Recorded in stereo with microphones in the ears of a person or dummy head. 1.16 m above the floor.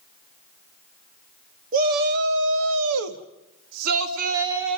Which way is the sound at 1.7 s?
45° right (ahead or behind).